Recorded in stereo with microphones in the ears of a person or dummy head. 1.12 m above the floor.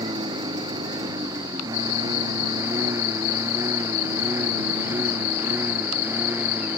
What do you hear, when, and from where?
0.0 s a lawn mower: 20° right (ahead or behind); by 6.8 s 10° right (ahead or behind)